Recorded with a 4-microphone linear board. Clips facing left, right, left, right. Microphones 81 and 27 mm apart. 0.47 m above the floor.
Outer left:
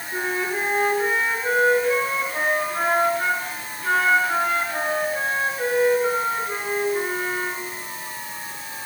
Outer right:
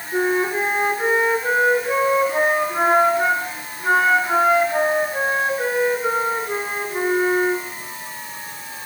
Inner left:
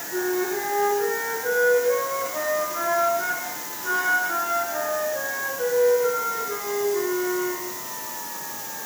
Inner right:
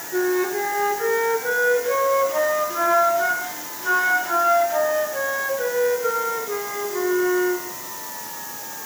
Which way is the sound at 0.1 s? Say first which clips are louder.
Outer right 6 dB, inner right 4 dB; 20° right (ahead or behind).